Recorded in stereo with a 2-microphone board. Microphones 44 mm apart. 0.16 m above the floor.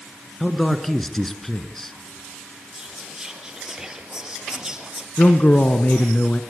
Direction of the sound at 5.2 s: 40° left (ahead or behind).